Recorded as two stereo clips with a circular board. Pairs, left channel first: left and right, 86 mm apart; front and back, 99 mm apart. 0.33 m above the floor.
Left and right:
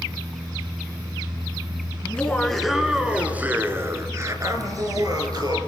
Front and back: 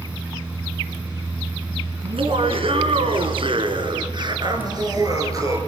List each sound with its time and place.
2.0 s laughter: 165° left, 4 m; by 5.6 s 125° right, 6 m